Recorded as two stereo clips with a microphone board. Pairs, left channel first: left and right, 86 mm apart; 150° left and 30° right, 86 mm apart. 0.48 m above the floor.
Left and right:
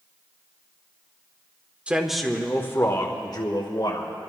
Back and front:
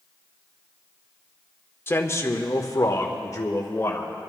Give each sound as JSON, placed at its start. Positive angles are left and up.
{"t": 1.9, "sound": "a man speaking", "azimuth_deg": -160, "distance_m": 1.0}